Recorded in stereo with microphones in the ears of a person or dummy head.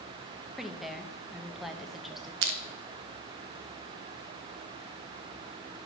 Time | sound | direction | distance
0.6 | a woman speaking | centre (ahead or behind) | 0.9 m
2.4 | crushing | 75° right (ahead or behind) | 0.8 m